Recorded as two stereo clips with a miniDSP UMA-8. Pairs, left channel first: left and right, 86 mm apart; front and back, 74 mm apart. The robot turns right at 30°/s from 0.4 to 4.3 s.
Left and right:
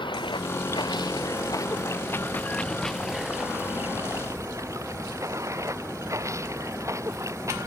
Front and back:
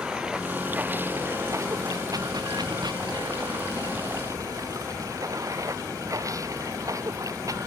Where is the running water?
100° left; by 7.7 s 140° right.